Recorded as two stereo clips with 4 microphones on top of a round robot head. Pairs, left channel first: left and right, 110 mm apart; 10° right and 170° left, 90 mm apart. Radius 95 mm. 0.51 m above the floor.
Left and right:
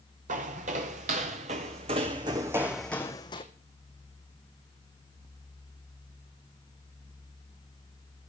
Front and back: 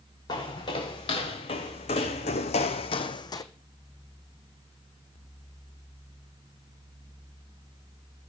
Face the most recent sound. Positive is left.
turn(degrees=35)